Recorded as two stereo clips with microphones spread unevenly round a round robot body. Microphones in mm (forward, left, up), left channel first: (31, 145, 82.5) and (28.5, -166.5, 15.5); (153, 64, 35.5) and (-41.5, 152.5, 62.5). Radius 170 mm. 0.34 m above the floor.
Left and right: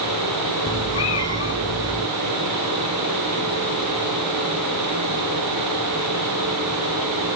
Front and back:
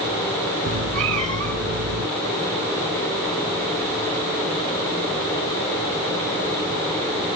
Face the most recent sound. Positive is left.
turn(degrees=150)